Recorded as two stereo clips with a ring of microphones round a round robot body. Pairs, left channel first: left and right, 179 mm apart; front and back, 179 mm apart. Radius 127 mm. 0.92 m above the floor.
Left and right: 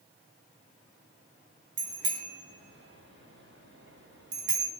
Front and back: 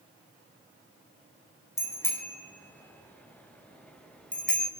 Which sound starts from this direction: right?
A bicycle bell, at 1.8 s.